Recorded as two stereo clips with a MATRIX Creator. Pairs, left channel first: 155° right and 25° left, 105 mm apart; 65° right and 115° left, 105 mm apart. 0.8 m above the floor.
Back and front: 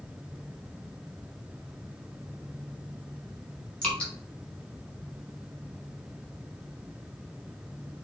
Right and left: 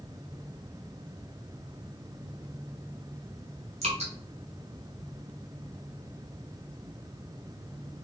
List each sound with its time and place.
3.8 s dripping: 120° left, 1.0 m